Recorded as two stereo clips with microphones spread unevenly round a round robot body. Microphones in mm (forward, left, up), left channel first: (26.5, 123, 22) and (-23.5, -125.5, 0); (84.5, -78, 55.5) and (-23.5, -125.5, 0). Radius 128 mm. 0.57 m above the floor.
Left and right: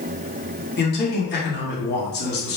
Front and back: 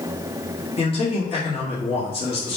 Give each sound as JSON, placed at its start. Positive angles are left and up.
{"t": 0.8, "sound": "a man speaking", "azimuth_deg": 70, "distance_m": 1.3}